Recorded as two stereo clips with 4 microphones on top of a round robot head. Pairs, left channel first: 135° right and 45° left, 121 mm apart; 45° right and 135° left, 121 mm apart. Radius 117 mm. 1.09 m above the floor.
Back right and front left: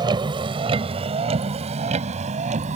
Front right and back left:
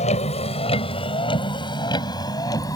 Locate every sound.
0.0 s a vehicle: 10° right; by 2.8 s 15° left